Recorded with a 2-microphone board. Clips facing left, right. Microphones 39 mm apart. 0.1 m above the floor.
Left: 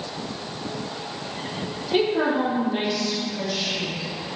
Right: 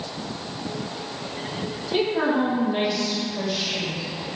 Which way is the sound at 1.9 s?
20° left (ahead or behind).